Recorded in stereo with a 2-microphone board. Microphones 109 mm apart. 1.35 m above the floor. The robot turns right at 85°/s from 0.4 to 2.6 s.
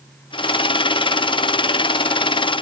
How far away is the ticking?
I don't hear ticking.